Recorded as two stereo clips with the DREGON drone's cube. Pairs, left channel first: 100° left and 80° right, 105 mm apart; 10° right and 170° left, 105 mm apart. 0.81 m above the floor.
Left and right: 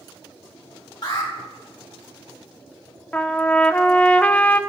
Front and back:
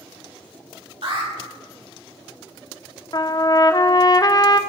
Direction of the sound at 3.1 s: 25° left.